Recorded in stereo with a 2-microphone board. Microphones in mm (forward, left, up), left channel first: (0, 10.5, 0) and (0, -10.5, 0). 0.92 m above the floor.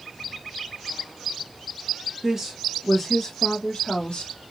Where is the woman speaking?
25° right (ahead or behind), 1.1 m; by 4.3 s 55° left (ahead or behind), 1.1 m.